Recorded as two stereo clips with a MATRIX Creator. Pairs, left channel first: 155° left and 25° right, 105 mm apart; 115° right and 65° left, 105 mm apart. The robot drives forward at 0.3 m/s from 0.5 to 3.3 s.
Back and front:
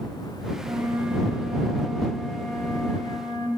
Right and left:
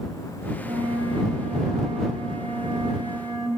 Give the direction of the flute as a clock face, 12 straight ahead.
11 o'clock.